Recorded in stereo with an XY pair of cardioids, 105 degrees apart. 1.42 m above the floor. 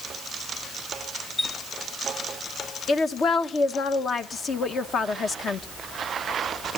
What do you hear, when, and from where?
1.4 s a chime: 35° left, 2.5 m
2.9 s a woman speaking: 50° left, 1.1 m